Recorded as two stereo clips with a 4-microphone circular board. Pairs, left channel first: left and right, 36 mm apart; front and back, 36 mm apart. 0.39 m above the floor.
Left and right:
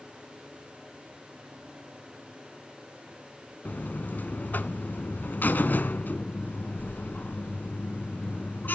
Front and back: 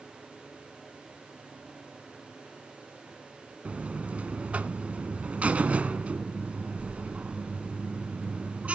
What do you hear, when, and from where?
3.6 s a buzzer: 125° left, 0.8 m